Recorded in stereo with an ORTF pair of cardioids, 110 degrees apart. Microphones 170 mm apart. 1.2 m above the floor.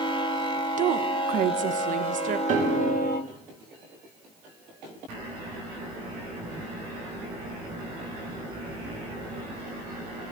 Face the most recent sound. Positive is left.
turn(degrees=-50)